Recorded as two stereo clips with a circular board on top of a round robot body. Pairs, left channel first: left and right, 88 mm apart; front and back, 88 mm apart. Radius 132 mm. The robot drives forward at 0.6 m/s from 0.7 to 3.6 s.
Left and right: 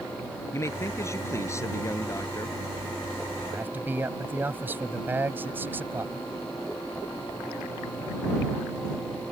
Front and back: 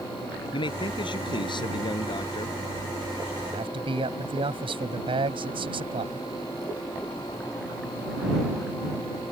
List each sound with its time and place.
0.5 s a man speaking: 30° left; by 2.6 s 35° left
3.5 s a man speaking: 160° right